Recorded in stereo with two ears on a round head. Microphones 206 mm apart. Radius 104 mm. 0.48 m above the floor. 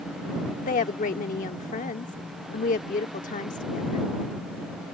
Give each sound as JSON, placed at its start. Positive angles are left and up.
{"t": 0.6, "sound": "a woman speaking", "side_deg": 35}